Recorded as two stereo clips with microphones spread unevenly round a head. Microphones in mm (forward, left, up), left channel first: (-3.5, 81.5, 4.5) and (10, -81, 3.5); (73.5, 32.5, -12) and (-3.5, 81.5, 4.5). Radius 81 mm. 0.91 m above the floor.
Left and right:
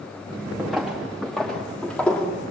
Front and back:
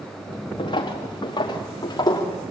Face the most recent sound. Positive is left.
turn(degrees=10)